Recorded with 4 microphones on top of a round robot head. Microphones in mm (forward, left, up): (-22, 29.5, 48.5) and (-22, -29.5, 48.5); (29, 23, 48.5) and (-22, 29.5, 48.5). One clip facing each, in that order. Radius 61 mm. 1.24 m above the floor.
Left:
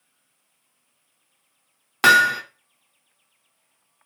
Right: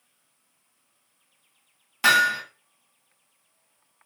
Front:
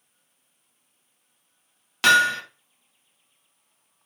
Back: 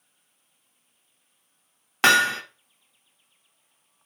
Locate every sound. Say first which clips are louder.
2.0 s hammering: left 4 dB, front 1 dB; 115° left, 0.5 m